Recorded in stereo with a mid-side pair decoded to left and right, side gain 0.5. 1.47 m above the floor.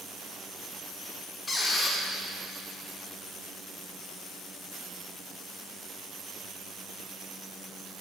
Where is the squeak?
30° left, 1.6 m.